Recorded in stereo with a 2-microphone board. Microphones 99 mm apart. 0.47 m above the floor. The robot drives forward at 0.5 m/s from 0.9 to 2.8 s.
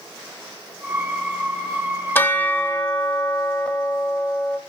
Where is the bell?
20° left (ahead or behind), 0.7 m; by 4.6 s 15° left (ahead or behind), 1.0 m.